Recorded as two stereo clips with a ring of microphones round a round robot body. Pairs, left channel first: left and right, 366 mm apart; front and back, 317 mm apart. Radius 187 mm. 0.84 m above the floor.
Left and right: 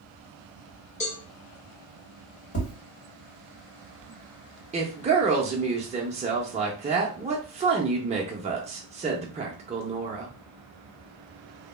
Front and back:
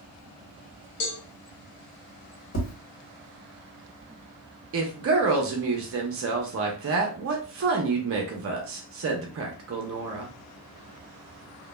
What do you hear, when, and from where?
1.0 s a cowbell: 15° left, 1.0 m
2.5 s tapping: 35° left, 1.5 m
4.7 s a woman speaking: 155° right, 0.5 m